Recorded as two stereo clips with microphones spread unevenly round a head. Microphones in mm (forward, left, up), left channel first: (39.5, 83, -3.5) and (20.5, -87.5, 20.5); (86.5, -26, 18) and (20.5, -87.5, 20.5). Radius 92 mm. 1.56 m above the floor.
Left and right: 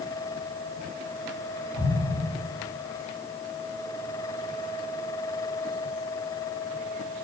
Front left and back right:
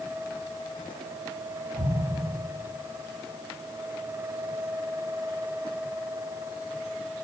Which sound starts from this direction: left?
An explosion, at 1.8 s.